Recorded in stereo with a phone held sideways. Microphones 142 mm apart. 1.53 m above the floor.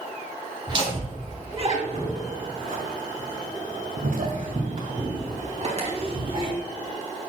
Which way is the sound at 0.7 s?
35° right (ahead or behind).